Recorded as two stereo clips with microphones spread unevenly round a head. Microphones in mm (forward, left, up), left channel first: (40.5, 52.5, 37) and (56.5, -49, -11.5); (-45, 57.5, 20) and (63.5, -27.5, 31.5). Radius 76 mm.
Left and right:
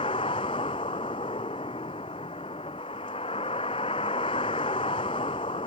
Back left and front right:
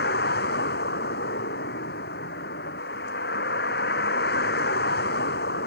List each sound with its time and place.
0.0 s a vehicle: 155° left